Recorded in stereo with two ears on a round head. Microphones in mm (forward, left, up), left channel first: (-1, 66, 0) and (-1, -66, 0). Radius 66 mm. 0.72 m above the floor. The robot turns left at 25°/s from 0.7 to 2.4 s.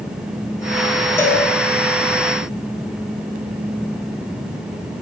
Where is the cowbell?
20° left (ahead or behind), 1.8 m; by 1.4 s 10° left (ahead or behind), 1.8 m.